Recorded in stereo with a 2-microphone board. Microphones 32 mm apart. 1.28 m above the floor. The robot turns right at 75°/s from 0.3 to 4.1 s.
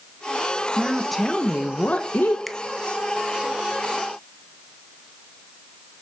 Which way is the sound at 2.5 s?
Centre (ahead or behind).